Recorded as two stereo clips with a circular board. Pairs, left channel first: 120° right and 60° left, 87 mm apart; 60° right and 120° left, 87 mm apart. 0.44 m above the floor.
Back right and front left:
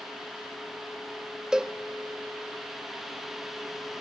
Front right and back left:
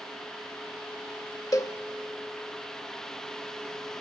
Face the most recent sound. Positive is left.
turn(degrees=-20)